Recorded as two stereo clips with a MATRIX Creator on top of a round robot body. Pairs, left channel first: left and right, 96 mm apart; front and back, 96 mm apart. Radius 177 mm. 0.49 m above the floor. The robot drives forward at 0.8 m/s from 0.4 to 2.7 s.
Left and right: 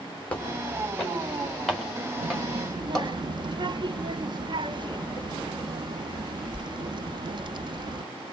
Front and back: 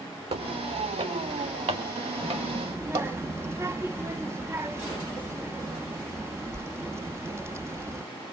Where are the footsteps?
165° left, 3.5 m; by 3.1 s straight behind, 4 m.